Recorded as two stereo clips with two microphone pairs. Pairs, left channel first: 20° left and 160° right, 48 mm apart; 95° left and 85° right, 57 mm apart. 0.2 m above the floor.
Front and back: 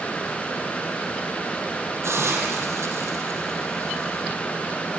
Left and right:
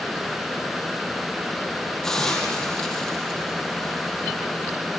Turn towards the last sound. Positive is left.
turn(degrees=175)